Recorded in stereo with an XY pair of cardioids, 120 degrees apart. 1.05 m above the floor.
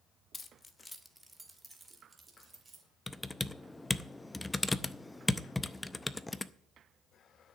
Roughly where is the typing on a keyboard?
Ahead.